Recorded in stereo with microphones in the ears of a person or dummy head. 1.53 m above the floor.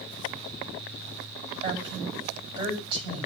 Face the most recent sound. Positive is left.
turn(degrees=-25)  # may be behind; listen again after turning